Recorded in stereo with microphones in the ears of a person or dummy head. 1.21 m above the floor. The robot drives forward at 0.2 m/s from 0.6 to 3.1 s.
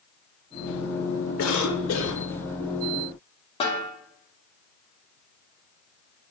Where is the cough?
85° left, 1.3 m; by 2.2 s 80° left, 1.4 m.